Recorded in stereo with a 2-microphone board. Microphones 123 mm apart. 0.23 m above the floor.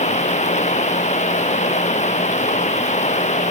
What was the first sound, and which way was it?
Running water, 70° left (ahead or behind).